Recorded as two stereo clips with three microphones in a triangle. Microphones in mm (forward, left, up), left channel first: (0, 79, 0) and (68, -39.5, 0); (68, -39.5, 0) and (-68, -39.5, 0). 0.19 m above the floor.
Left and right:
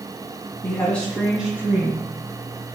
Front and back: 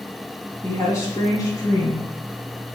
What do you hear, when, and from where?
0.6 s a woman speaking: 55° left, 1.3 m; by 2.1 s 25° right, 1.2 m